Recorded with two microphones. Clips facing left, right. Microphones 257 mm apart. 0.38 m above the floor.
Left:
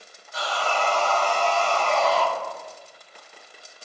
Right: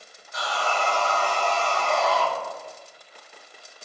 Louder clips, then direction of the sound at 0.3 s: Left 1 dB; 30° left (ahead or behind).